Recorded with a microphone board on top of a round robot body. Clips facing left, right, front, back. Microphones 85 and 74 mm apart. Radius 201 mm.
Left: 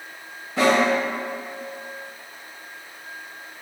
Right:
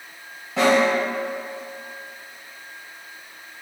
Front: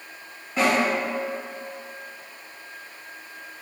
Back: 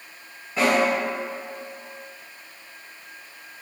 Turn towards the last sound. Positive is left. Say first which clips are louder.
# right 1 dB, back 1 dB
turn(degrees=-95)